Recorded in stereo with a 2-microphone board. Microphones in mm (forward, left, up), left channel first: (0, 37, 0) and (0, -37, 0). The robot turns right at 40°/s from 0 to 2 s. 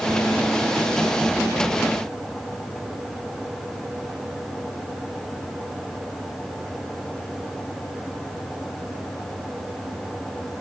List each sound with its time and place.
Only background noise.